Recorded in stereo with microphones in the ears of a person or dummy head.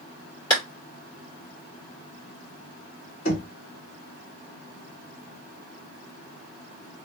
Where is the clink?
No clink in this recording.